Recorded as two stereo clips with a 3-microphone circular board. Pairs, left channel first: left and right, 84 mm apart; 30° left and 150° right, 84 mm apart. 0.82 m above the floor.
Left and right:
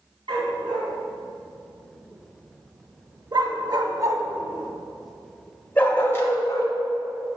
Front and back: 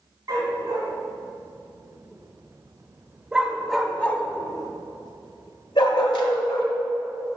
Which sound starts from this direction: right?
A dog barking, at 0.3 s.